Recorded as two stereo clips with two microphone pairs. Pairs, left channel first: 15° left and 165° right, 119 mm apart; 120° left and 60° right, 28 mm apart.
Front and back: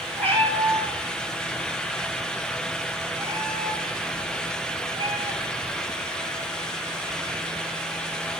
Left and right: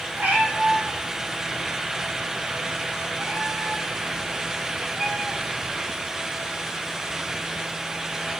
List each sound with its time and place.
0.2 s a cat meowing: 60° right, 3.5 m; by 5.7 s 115° right, 6.5 m